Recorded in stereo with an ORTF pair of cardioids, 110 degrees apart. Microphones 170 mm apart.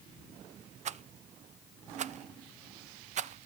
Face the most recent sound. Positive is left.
turn(degrees=-45)